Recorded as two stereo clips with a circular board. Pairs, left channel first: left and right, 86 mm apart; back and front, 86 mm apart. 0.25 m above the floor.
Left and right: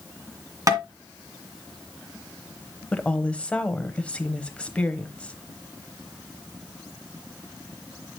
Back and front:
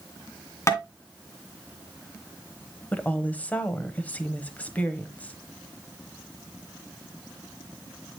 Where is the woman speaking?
140° left, 1.0 m.